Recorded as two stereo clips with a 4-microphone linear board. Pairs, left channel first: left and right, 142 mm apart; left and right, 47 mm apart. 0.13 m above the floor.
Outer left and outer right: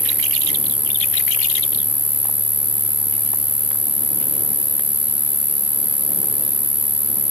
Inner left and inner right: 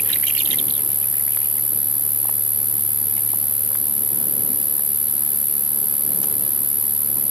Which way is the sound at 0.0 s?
45° left (ahead or behind).